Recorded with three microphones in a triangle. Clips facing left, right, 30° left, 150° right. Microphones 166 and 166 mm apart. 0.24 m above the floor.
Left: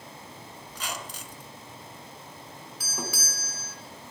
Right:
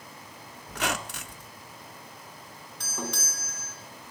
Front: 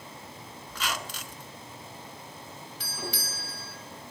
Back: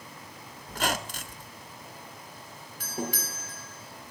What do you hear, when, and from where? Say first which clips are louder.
0.7 s a squeak: right 7 dB, back 5 dB; 110° right, 1.0 m
2.8 s a doorbell: right 1 dB, back 5 dB; 175° left, 3.5 m